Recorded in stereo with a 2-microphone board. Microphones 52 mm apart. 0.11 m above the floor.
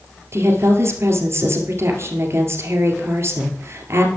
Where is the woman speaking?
50° right (ahead or behind), 1.7 m.